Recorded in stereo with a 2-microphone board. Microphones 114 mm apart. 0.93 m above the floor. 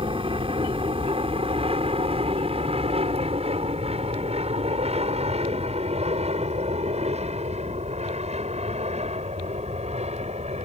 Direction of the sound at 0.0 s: 50° right (ahead or behind).